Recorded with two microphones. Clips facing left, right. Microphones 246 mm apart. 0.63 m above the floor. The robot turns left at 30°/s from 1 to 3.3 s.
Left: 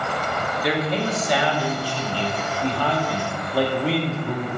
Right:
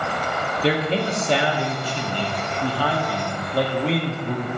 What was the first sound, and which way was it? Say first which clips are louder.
A man speaking: right 2 dB; 115° right.